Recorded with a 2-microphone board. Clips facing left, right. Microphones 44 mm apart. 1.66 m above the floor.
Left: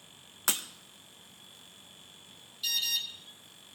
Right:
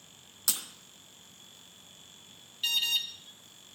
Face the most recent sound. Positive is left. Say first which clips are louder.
# right 3 dB
turn(degrees=-45)  # may be behind; listen again after turning